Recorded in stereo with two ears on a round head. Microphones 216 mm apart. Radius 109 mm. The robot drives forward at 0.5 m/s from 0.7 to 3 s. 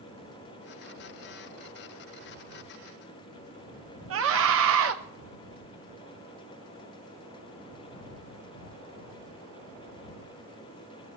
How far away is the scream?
About 0.7 m.